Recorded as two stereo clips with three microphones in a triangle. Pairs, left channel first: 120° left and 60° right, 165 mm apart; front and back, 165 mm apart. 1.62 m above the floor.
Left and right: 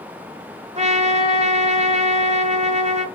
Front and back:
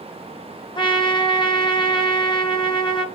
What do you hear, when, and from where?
0.8 s a trumpet: 45° right, 1.9 m